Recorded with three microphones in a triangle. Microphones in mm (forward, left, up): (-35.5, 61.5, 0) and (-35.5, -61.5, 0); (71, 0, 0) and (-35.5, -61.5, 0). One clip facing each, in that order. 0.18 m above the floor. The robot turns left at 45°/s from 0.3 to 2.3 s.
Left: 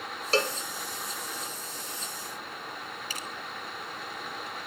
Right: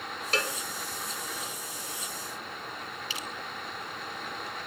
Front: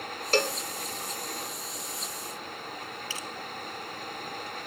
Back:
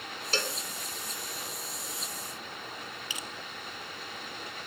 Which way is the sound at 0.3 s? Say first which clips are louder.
Left 5 dB, front 8 dB; 40° left.